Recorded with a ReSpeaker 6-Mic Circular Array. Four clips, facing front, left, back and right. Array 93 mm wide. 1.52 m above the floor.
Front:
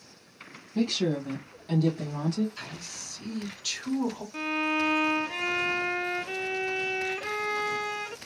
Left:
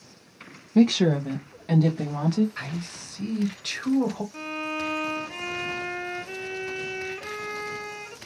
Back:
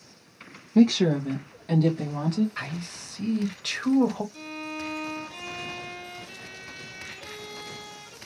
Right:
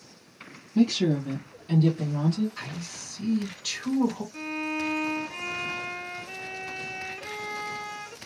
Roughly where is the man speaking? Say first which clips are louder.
Left 4 dB, back 7 dB; behind left.